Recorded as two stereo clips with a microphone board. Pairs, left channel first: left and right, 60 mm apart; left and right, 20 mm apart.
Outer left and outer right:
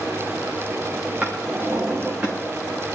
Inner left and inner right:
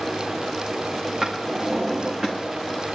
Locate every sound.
1.2 s a drawer: 25° right (ahead or behind), 5 m